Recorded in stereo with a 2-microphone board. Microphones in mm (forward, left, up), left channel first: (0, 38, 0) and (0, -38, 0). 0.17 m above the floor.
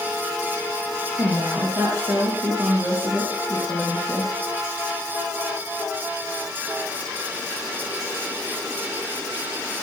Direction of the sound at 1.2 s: 50° right (ahead or behind).